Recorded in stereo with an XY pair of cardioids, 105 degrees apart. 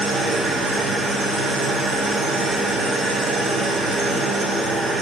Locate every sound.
0.0 s an engine running: 55° right, 1.1 m